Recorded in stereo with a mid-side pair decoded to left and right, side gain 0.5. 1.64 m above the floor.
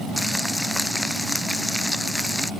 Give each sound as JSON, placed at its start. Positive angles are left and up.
{"t": 0.2, "sound": "frying", "azimuth_deg": 10}